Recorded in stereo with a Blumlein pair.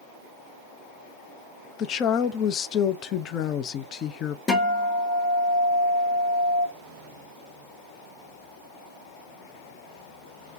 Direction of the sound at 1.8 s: 30° left.